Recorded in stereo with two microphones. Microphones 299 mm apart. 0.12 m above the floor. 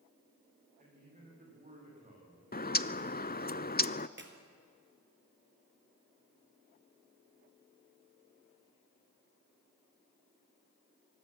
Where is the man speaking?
25° right (ahead or behind), 9.5 m.